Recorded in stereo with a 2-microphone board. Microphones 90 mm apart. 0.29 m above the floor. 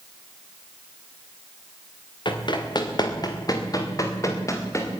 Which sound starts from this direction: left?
Running footsteps, at 2.2 s.